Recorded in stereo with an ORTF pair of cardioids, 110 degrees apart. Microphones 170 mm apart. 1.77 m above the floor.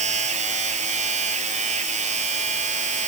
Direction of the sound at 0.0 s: 45° right.